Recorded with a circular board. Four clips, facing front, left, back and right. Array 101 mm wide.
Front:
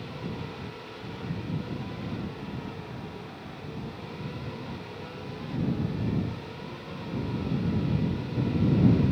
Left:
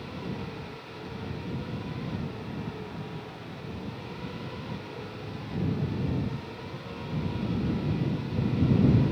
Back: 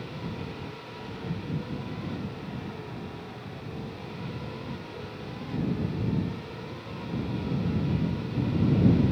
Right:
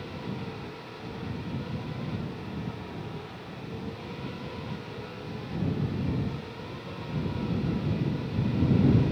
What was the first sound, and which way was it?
Only background noise.